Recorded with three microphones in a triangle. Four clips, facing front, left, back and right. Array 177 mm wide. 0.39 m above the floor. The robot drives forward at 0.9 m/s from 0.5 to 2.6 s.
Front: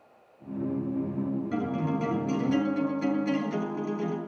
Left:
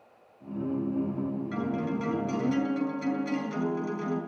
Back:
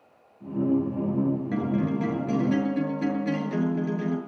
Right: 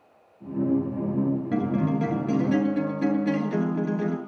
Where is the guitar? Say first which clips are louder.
Right 6 dB, back 3 dB; 115° right, 7.5 m; by 4.2 s 120° right, 8 m.